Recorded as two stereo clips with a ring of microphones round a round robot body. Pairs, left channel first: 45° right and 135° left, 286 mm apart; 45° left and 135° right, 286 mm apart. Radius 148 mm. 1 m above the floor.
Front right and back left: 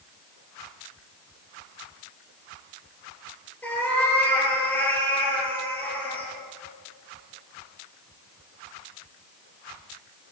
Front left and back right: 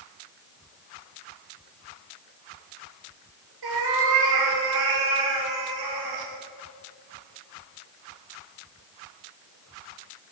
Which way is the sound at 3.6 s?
130° right.